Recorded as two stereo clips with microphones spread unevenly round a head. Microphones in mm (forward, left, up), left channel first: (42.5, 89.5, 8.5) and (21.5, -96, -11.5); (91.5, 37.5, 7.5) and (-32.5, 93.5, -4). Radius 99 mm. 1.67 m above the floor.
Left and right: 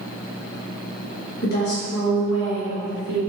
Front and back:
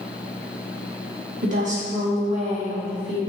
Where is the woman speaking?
130° left, 2 m; by 3.2 s 105° left, 3.5 m.